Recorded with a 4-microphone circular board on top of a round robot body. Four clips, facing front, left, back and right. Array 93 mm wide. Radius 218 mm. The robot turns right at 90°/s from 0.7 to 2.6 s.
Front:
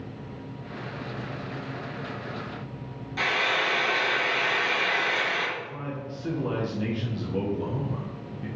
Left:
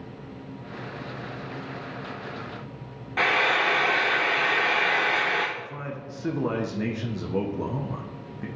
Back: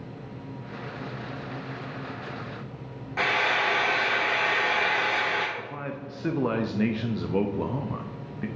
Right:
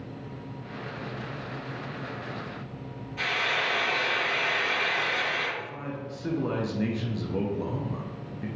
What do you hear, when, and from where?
3.2 s frying: 120° left, 0.6 m
5.6 s a man speaking: 160° left, 0.9 m